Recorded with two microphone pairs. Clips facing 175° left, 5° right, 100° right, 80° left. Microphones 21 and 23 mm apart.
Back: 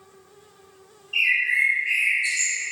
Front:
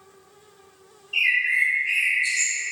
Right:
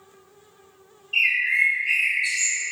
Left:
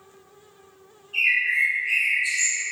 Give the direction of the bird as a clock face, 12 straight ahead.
3 o'clock.